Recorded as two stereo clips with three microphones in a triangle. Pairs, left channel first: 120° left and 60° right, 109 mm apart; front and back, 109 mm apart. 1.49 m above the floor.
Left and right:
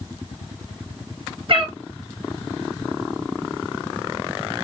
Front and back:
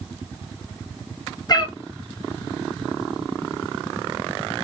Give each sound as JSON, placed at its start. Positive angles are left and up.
{"t": 1.5, "sound": "a cat meowing", "azimuth_deg": -45, "distance_m": 1.3}